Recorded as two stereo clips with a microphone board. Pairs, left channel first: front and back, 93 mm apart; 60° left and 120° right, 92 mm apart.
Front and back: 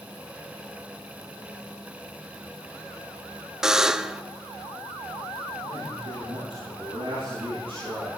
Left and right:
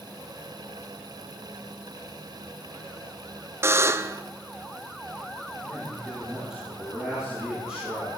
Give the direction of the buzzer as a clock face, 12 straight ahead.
3 o'clock.